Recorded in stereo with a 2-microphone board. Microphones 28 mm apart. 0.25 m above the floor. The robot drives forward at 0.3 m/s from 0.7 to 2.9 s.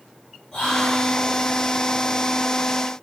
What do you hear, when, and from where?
0.5 s whispering: 30° left (ahead or behind), 1.8 m